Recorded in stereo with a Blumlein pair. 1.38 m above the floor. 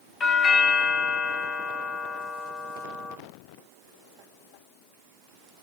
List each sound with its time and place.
0.2 s a doorbell: 25° left, 0.8 m